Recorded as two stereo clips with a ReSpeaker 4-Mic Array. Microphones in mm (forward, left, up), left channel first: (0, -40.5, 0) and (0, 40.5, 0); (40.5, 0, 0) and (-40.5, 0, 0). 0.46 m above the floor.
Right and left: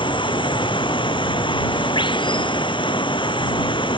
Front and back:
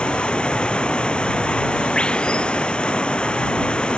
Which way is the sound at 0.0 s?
80° right.